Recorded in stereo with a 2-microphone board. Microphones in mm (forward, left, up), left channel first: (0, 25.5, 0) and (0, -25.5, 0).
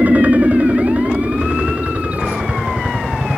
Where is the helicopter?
35° right (ahead or behind); by 3.4 s 25° right (ahead or behind).